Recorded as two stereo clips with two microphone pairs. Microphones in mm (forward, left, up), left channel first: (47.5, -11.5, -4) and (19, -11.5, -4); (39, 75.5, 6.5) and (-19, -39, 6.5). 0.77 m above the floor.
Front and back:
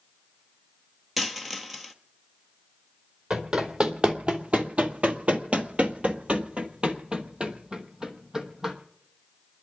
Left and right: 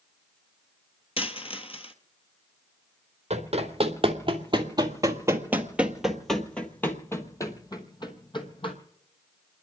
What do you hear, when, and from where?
1.2 s a dropped coin: 90° left, 1.2 m
3.3 s running footsteps: 145° right, 1.8 m; by 8.8 s 110° left, 2 m